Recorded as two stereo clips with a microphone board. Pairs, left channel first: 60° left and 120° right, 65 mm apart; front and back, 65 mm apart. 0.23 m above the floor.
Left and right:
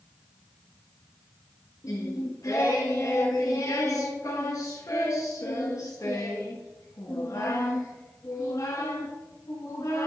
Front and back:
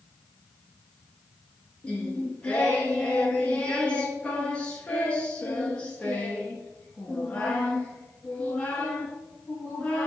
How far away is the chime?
No chime in this recording.